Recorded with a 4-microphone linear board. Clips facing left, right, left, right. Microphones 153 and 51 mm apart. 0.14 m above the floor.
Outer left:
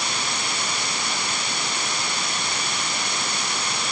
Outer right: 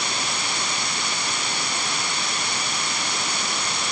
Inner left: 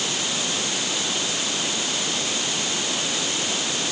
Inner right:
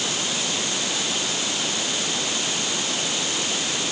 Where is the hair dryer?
No hair dryer in this recording.